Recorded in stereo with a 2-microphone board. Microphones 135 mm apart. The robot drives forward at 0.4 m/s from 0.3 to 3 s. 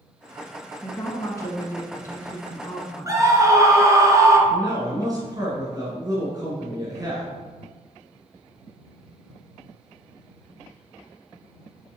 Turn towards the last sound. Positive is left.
turn(degrees=-30)  # may be behind; listen again after turning